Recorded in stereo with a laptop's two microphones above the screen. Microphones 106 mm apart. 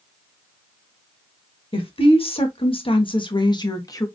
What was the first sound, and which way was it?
A woman speaking, 60° left (ahead or behind).